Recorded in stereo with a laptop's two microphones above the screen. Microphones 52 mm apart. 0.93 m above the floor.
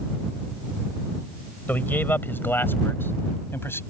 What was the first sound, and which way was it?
A man speaking, 35° left (ahead or behind).